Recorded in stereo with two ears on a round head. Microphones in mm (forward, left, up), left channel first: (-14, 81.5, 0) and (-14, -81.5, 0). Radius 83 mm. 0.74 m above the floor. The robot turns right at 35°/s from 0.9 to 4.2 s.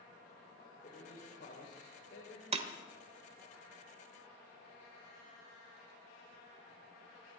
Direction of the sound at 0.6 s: 45° left.